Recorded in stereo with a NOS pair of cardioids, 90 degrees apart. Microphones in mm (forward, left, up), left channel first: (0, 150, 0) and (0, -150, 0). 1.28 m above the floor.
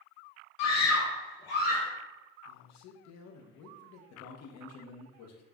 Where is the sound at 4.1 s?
55° left, 0.7 m.